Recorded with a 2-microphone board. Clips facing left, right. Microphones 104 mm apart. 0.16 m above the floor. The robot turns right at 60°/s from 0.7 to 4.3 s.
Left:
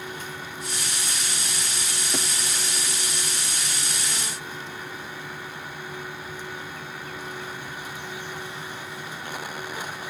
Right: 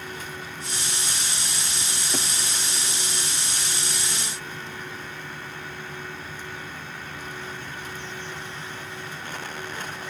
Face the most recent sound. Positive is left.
No sound to turn to.